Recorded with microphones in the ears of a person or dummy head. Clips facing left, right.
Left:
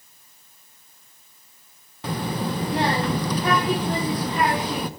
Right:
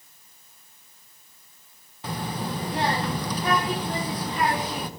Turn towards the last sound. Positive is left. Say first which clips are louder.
# left 4 dB
turn(degrees=60)  # may be behind; listen again after turning